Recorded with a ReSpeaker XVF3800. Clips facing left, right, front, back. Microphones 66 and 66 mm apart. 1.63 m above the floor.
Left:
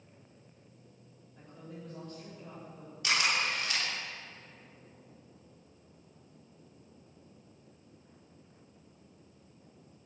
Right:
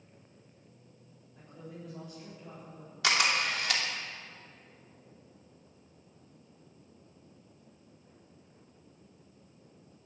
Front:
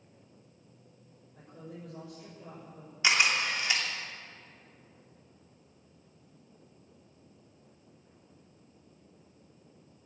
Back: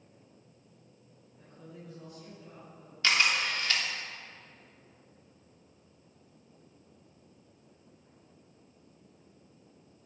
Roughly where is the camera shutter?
Right.